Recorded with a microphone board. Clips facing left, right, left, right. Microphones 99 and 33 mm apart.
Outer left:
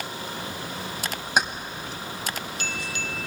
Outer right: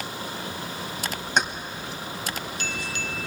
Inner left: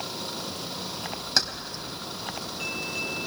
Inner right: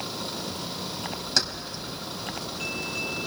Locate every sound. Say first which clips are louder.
1.4 s keys jangling: even, even; 5° left (ahead or behind), 1.3 m